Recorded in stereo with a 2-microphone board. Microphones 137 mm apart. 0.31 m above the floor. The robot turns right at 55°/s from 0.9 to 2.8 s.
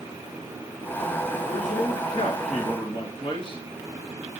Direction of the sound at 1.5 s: 65° left.